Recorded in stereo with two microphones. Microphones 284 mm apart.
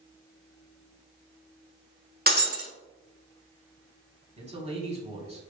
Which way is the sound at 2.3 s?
35° right (ahead or behind).